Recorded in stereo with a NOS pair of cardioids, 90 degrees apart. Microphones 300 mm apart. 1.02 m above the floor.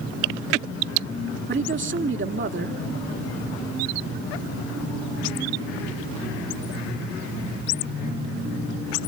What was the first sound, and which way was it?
A man speaking, 40° right.